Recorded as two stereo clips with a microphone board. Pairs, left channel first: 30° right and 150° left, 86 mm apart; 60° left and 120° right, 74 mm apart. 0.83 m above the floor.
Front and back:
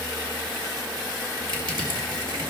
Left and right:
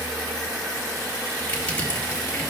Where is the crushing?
130° left, 3 m.